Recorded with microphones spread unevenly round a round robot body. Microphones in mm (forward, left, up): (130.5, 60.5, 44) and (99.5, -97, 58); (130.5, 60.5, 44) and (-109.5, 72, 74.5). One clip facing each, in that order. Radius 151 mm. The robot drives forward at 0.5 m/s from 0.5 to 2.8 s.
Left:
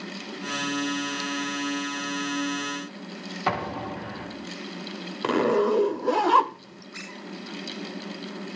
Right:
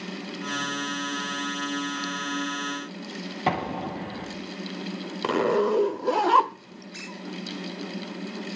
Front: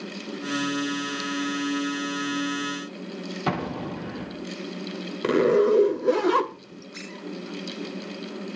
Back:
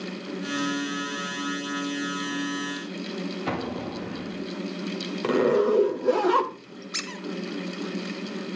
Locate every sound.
3.5 s an explosion: 35° right, 6.5 m
5.2 s a zipper: 5° right, 1.4 m
6.9 s a squeak: 175° right, 1.8 m